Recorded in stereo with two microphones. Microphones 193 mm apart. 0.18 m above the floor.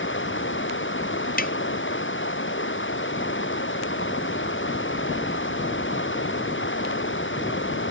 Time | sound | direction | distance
0.0 | running water | 90° left | ?
1.4 | tapping | 50° left (ahead or behind) | ?